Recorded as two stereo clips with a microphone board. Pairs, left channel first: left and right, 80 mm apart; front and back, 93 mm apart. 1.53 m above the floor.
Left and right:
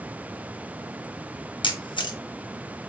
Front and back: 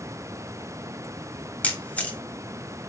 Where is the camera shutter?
75° left, 1.6 m.